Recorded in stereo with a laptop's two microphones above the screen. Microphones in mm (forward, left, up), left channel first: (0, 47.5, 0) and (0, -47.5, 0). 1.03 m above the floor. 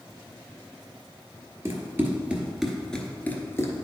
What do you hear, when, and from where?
1.6 s running footsteps: 30° right (ahead or behind), 1.3 m; by 3.9 s 35° left (ahead or behind), 1.2 m